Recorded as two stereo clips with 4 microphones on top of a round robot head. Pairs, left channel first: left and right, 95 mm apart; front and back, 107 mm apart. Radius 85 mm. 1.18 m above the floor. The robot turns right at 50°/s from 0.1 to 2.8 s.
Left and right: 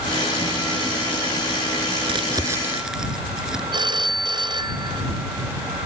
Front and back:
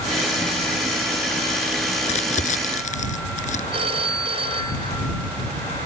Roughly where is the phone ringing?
Behind right.